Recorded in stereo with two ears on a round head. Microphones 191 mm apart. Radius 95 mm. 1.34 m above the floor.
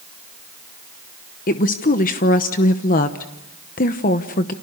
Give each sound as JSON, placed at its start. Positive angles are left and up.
{"t": 1.5, "sound": "a woman speaking", "side_deg": 40, "distance_m": 1.0}